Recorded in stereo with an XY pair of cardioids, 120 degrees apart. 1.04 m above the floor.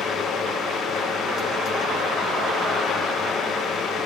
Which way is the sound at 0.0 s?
55° left.